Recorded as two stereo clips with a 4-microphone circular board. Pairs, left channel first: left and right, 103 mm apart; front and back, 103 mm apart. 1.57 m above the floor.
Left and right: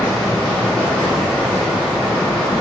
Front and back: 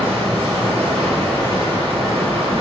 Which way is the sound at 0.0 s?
175° left.